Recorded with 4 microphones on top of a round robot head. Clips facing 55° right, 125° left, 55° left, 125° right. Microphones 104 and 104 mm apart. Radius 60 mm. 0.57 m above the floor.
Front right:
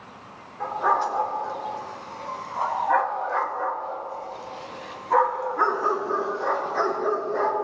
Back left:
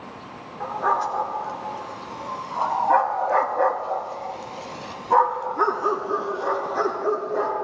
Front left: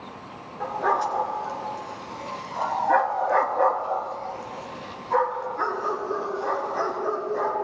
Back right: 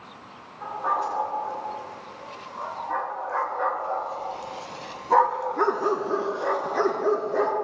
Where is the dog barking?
40° left, 2.5 m; by 7.5 s 155° right, 2.5 m.